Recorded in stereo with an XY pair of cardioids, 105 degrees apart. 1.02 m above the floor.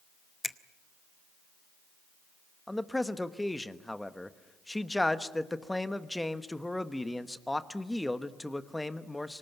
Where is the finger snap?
20° left, 0.8 m.